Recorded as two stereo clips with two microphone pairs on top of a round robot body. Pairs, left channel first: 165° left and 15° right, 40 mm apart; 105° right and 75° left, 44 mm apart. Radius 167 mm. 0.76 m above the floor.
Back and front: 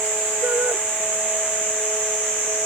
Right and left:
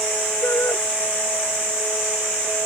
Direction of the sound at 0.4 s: 70° right.